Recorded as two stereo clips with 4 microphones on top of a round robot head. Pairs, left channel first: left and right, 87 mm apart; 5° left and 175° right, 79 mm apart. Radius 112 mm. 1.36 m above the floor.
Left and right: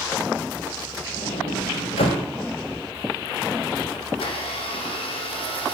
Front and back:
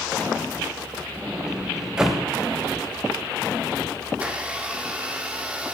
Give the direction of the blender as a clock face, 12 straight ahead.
8 o'clock.